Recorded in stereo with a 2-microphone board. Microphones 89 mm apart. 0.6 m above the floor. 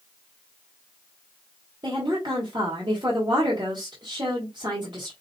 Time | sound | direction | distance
1.8 | a woman speaking | 55° right (ahead or behind) | 2 m